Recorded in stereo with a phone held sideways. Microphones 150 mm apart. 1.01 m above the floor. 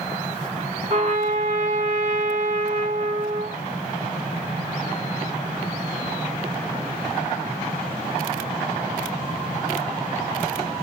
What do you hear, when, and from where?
0.9 s a trumpet: 45° right (ahead or behind), 3.5 m